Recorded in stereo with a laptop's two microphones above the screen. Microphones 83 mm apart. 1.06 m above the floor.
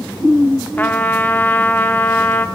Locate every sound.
0.8 s a trumpet: 20° left (ahead or behind), 0.7 m